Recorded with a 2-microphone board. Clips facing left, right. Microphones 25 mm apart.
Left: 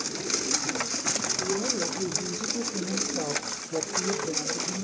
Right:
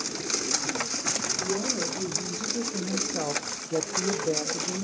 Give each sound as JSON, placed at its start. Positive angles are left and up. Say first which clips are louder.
{"t": 1.4, "sound": "a woman speaking", "louder": "left 1 dB", "side_deg": -10, "distance_m": 1.6}